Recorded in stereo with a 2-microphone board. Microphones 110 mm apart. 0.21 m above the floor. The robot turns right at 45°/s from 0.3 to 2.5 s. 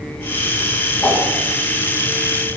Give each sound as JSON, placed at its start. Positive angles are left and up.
{"t": 1.0, "sound": "a whoosh", "side_deg": 10, "distance_m": 1.7}